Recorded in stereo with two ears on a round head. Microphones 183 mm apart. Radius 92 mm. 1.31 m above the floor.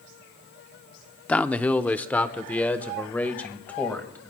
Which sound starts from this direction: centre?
A man speaking, at 1.3 s.